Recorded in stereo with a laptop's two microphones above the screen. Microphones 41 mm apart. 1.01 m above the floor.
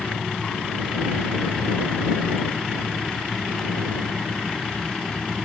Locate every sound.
0.0 s a fan: 15° left (ahead or behind)